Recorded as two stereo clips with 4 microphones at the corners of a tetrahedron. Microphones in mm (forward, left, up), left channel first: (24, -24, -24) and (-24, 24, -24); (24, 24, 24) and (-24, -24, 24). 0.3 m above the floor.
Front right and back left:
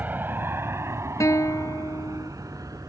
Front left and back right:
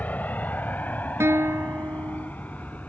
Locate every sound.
0.0 s an aircraft: 95° left; by 2.9 s 110° left
1.2 s a guitar: 85° right